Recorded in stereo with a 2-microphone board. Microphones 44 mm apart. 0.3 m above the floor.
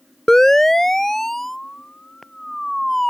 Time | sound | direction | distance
0.3 | a siren | 10° left (ahead or behind) | ?